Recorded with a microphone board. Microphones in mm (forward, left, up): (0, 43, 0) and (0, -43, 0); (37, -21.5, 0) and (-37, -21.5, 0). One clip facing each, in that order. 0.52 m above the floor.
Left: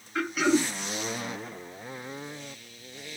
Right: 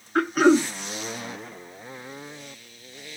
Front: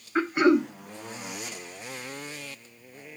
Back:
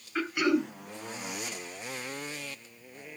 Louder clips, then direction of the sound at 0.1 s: Right 7 dB, front 6 dB; 55° right.